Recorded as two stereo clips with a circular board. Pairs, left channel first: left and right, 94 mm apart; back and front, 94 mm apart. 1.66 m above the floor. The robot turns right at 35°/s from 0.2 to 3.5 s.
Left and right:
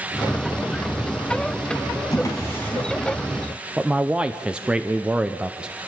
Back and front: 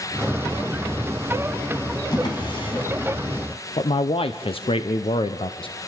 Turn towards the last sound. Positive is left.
turn(degrees=-170)